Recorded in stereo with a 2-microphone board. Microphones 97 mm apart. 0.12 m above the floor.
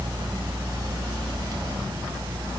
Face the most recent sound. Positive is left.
No sound to turn to.